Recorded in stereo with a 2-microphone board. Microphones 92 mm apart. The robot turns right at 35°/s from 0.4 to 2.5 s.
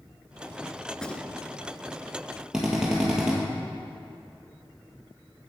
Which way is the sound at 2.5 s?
5° right (ahead or behind).